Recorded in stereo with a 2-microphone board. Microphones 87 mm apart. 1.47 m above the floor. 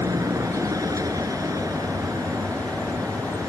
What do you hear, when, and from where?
0.0 s a vehicle: 40° right (ahead or behind)